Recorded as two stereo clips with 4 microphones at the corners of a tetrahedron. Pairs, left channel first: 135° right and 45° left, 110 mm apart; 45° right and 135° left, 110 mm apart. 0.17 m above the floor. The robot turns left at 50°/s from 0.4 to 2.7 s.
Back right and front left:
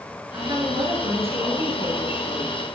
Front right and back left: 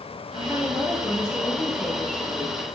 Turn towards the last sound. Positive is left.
turn(degrees=-20)